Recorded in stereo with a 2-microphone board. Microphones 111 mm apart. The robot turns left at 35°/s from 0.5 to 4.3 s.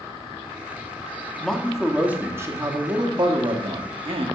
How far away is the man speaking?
About 1.2 m.